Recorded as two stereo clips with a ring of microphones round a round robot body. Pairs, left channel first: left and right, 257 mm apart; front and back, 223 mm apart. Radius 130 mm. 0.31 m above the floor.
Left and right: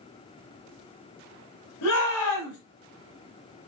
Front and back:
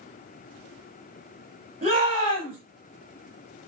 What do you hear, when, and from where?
1.8 s a shout: 120° left, 6 m